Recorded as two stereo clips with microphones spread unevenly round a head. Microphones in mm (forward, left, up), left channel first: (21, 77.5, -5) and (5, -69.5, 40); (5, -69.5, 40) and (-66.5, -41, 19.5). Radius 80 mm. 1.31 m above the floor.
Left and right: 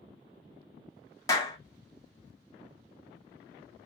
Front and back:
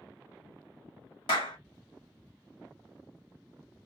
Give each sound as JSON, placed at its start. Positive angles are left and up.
{"t": 1.3, "sound": "a clap", "azimuth_deg": 20, "distance_m": 1.5}